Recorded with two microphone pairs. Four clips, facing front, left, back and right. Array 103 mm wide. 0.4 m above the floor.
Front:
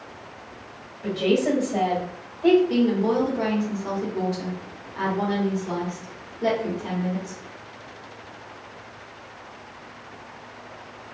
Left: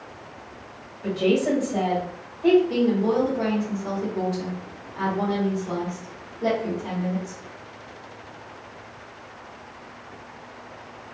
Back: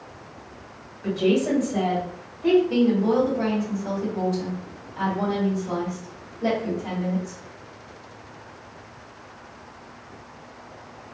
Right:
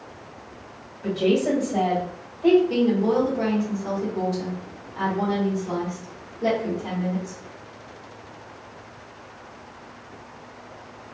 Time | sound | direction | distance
1.0 | a woman speaking | 30° right | 1.6 m
2.7 | a woman speaking | 25° right | 1.3 m